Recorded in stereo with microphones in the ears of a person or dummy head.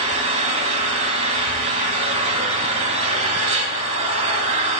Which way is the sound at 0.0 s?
35° right (ahead or behind).